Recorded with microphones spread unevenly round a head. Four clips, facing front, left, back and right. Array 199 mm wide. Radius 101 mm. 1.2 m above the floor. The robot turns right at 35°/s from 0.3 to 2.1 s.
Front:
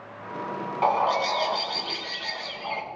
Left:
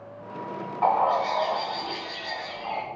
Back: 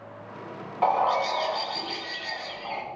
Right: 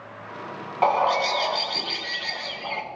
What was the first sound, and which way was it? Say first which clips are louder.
A bird: right 1 dB, even; 115° right.